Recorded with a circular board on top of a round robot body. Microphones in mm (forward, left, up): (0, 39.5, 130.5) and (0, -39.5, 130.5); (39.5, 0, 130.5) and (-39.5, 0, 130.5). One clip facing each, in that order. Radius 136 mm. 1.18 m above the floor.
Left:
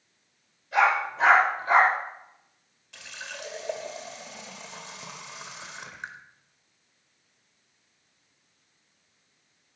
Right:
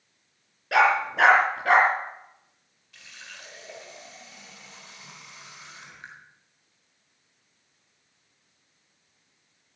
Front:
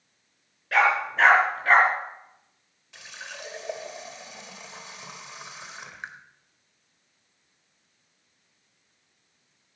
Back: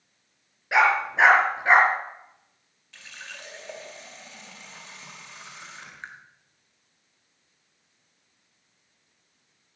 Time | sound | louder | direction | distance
0.7 | a dog barking | right 2 dB, back 1 dB | 105° right | 4.5 m
2.9 | a running tap | left 6 dB, front 2 dB | 75° left | 1.7 m